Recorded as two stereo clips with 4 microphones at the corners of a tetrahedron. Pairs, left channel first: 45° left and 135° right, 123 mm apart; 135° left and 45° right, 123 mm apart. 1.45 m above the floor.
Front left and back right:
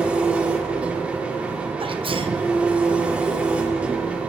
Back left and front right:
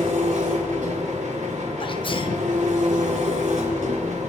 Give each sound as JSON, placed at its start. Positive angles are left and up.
{"t": 0.0, "sound": "an engine running", "azimuth_deg": -55, "distance_m": 3.0}
{"t": 1.8, "sound": "a sneeze", "azimuth_deg": 180, "distance_m": 1.4}